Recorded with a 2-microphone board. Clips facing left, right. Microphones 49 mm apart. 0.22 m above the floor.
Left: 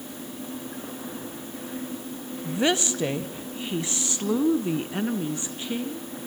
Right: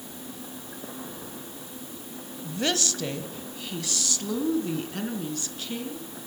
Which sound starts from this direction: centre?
A woman speaking, at 2.4 s.